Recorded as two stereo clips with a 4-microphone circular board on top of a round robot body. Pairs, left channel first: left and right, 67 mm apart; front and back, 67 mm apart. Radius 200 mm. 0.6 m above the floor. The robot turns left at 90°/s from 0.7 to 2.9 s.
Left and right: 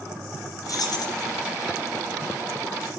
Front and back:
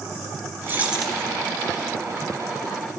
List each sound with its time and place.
0.7 s keys jangling: 120° left, 2.5 m; by 1.2 s 75° left, 2.5 m